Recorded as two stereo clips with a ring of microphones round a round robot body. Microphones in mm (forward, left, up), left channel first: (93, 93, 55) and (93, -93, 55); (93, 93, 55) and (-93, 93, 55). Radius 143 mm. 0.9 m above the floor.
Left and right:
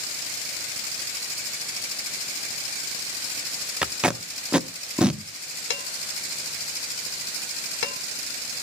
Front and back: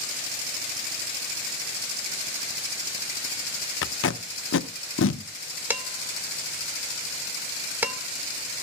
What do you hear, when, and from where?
3.8 s tape being pulled: 5° right, 0.7 m
5.7 s dishes clattering: 100° left, 1.7 m